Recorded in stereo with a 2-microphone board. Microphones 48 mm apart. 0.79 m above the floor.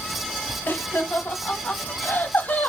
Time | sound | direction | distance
0.7 | laughter | 45° left (ahead or behind) | 1.1 m